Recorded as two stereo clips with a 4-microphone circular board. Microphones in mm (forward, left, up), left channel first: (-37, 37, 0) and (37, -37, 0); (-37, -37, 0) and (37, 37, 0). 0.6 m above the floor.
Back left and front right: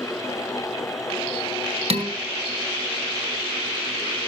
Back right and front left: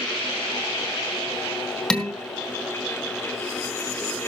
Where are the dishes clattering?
55° right, 1.9 m.